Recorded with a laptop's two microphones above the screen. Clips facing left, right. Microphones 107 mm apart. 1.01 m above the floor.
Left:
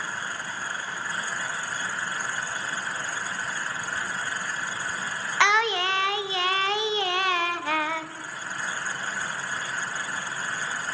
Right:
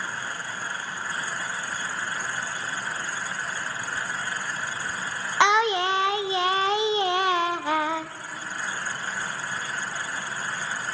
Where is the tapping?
I don't hear tapping.